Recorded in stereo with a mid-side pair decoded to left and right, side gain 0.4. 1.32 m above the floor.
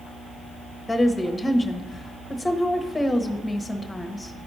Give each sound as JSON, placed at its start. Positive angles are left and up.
{"t": 0.9, "sound": "a woman speaking", "azimuth_deg": 20, "distance_m": 1.1}